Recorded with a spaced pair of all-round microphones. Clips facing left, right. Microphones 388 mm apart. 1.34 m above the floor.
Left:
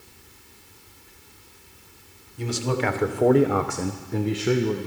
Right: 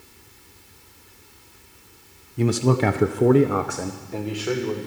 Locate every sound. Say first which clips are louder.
2.4 s a man speaking: right 6 dB; 75° right (ahead or behind), 0.9 m; by 4.9 s 40° left (ahead or behind), 1.4 m